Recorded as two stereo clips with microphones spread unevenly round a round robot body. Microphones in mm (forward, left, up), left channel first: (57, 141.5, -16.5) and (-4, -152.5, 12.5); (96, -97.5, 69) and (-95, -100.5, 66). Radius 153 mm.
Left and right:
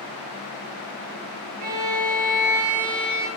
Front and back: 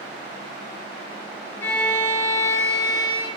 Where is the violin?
80° right, 4.5 m.